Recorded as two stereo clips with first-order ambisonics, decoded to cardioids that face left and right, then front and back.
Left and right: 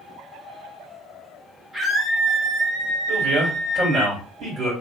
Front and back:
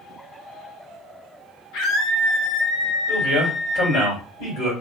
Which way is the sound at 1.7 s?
5° right.